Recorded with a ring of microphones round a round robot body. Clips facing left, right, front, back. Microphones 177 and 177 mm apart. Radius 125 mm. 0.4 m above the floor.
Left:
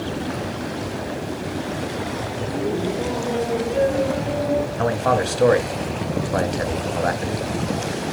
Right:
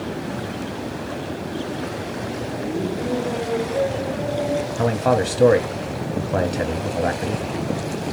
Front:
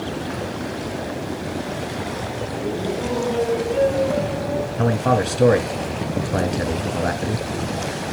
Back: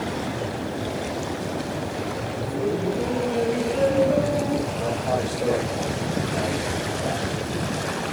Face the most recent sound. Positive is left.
turn(degrees=-25)